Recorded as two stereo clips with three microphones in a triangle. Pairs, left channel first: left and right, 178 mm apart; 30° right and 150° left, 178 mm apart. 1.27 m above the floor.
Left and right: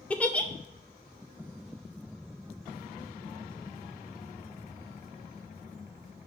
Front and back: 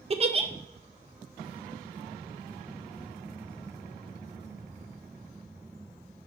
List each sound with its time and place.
0.1 s a giggle: 165° left, 0.5 m